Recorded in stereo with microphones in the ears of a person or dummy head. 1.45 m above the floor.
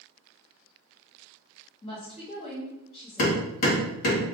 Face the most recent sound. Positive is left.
turn(degrees=55)  # may be behind; listen again after turning